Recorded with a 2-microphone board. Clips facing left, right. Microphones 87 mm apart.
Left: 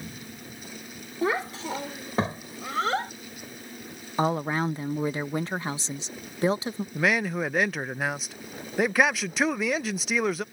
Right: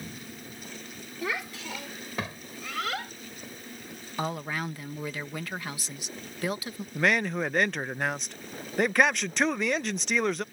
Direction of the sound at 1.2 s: 40° left (ahead or behind).